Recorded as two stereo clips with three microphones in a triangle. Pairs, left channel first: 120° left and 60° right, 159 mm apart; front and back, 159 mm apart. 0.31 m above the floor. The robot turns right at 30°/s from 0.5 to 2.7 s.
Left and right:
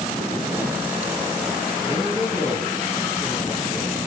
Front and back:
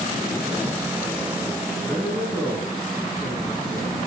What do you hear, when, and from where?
1.8 s a man speaking: 70° left, 3.5 m; by 4.0 s 95° left, 3.5 m